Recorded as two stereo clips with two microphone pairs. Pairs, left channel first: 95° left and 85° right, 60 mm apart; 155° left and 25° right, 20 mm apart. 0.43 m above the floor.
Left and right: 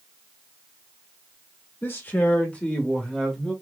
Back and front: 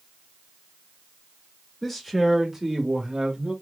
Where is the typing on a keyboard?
I don't hear typing on a keyboard.